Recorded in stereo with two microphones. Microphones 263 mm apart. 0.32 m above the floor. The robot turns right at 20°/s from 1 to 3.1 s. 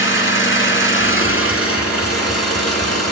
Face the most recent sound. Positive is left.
turn(degrees=95)